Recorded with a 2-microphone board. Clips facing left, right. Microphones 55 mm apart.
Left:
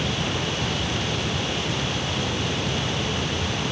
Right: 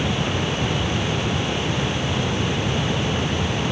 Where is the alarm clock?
No alarm clock in this recording.